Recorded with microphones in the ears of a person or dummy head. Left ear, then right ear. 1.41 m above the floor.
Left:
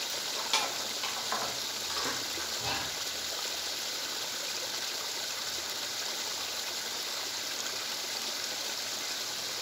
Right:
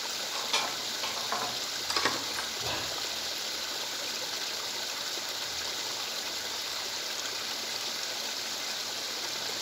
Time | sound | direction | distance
0.1 | keys jangling | 20° left (ahead or behind) | 1.9 m
2.6 | whispering | 20° left (ahead or behind) | 2.5 m